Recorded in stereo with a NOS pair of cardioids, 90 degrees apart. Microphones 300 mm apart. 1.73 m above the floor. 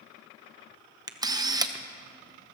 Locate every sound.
1.1 s a camera shutter: 15° right, 1.0 m